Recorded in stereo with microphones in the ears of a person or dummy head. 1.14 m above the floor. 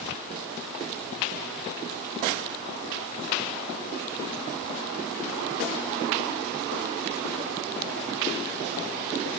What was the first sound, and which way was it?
Only background noise.